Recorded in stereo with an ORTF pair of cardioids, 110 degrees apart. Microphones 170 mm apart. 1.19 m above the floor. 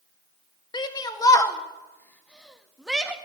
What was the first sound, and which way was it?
A shout, 25° left.